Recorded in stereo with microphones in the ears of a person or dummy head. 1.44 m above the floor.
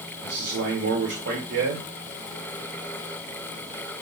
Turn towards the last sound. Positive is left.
turn(degrees=-75)  # may be behind; listen again after turning